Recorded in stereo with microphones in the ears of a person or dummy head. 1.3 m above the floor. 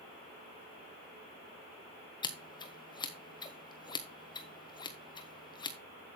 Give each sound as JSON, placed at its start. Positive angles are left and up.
{"t": 2.2, "sound": "scissors", "side_deg": 25, "distance_m": 1.2}